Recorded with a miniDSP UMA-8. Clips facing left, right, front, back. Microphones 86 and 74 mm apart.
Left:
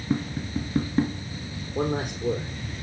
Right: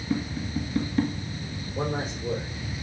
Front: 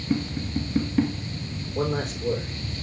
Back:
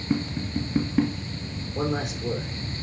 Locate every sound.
0.1 s tapping: 120° left, 1.5 m
1.8 s a man speaking: 100° left, 5 m